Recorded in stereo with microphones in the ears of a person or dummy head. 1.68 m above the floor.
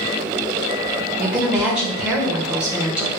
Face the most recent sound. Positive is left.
turn(degrees=-5)  # may be behind; listen again after turning